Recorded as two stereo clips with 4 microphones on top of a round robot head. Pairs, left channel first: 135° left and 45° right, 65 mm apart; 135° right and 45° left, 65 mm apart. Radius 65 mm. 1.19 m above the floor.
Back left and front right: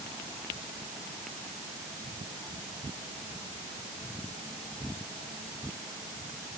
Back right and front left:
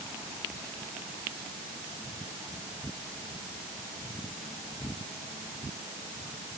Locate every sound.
Only background noise.